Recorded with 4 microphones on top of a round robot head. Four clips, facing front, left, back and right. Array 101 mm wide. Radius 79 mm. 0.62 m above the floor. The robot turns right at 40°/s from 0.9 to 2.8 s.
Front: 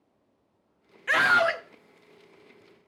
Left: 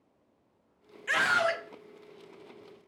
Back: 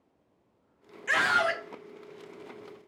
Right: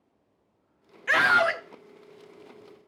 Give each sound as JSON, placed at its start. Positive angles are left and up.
{"t": 1.1, "sound": "a scream", "azimuth_deg": -65, "distance_m": 0.9}